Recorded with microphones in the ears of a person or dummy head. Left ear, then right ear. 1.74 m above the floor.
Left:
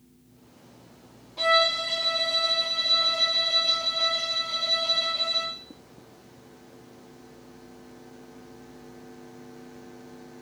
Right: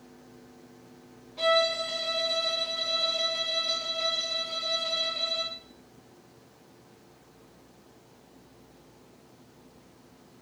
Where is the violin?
Centre (ahead or behind), 0.6 m.